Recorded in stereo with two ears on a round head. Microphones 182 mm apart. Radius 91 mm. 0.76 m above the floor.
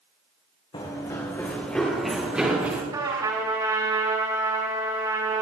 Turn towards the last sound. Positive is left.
turn(degrees=-20)  # may be behind; listen again after turning